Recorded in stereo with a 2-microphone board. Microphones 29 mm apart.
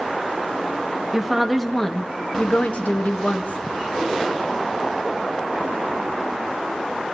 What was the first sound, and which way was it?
A woman speaking, 5° right (ahead or behind).